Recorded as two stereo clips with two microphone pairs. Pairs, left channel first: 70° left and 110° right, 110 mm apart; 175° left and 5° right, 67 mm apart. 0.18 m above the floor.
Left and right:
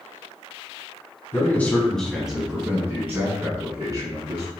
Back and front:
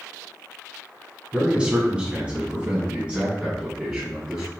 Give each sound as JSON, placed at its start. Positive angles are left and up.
{"t": 1.3, "sound": "a man speaking", "azimuth_deg": 45, "distance_m": 1.1}